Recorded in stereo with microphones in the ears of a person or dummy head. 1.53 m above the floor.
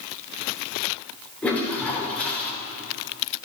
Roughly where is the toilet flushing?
Centre.